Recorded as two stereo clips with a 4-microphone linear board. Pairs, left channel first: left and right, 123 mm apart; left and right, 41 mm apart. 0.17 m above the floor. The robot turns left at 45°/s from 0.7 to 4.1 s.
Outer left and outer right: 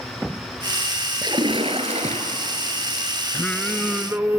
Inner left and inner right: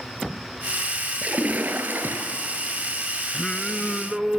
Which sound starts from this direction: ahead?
Singing, at 3.3 s.